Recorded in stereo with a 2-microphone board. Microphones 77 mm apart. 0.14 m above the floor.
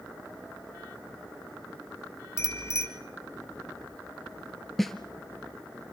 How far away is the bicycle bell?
About 2.5 m.